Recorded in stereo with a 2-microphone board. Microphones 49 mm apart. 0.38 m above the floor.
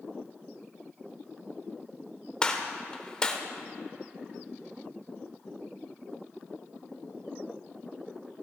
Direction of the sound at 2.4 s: 20° left (ahead or behind).